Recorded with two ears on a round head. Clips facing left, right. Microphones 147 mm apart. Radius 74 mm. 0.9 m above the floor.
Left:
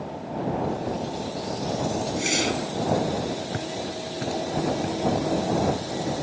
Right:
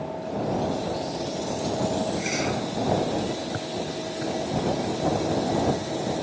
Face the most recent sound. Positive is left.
turn(degrees=60)  # may be behind; listen again after turning